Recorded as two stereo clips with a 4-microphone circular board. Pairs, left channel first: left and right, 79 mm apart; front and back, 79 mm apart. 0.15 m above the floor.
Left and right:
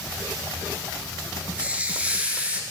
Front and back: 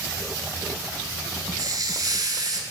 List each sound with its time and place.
1.6 s a hiss: 160° right, 0.9 m